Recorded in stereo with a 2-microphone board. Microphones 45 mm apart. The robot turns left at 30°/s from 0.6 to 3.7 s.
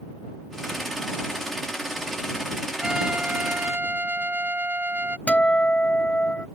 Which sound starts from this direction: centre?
A trumpet, at 2.8 s.